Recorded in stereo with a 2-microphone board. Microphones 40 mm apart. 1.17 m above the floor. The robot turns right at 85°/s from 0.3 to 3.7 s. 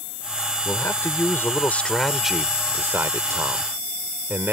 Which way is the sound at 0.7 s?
50° left.